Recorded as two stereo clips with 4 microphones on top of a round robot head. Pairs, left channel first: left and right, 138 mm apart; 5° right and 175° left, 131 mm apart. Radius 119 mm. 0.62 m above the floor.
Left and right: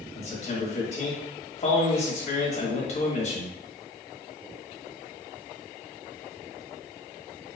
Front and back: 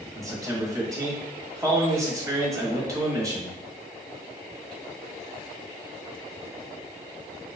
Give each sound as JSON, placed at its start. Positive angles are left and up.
{"t": 0.1, "sound": "a man speaking", "azimuth_deg": 115, "distance_m": 1.3}